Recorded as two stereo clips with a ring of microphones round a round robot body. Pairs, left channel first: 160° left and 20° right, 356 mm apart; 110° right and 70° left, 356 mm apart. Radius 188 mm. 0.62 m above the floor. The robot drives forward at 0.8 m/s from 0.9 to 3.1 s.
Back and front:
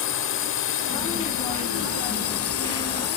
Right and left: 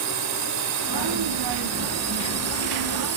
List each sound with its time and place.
0.0 s a drone: 105° left; by 3.2 s 115° left